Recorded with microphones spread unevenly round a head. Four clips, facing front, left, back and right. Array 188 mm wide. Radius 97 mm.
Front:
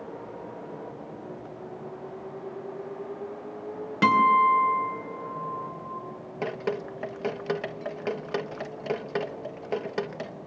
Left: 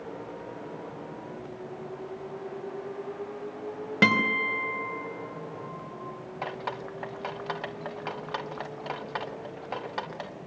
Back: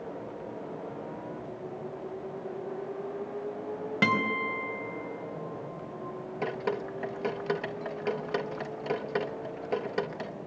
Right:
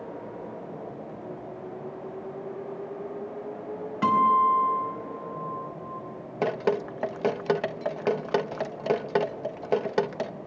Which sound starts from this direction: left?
A guitar, at 4.0 s.